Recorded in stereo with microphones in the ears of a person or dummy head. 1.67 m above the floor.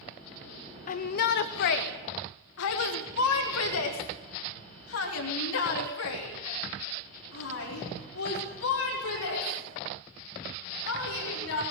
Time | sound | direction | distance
0.9 | a shout | 40° left (ahead or behind) | 0.8 m